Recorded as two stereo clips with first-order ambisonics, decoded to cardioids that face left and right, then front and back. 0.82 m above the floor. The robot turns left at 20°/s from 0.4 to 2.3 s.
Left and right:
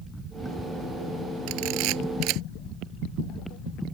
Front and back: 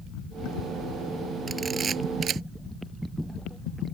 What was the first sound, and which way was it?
A camera shutter, 105° right.